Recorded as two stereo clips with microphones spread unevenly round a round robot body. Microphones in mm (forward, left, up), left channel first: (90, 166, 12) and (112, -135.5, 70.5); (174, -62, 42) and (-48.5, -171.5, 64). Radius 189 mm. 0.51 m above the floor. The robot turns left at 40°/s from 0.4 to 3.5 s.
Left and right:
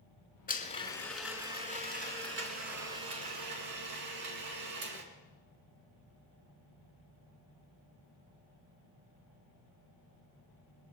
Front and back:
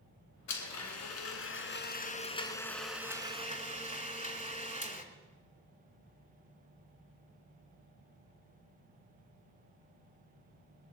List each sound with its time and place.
0.5 s a blender: 30° left, 2.5 m; by 5.0 s 90° right, 2.5 m